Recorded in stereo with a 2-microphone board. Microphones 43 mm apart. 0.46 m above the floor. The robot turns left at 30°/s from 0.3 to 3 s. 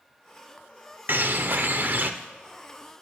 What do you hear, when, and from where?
1.1 s a bird: 80° right, 0.5 m; by 2.1 s 110° right, 0.5 m